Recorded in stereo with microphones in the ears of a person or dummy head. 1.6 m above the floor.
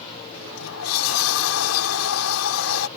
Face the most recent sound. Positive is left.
turn(degrees=80)